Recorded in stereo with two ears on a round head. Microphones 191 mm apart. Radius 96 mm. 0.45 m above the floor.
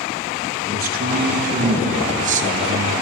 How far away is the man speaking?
About 6 m.